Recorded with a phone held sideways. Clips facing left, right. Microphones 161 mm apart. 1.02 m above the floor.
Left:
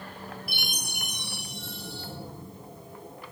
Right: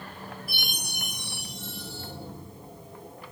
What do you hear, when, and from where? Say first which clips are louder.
0.5 s a chime: even; 70° left (ahead or behind), 1.5 m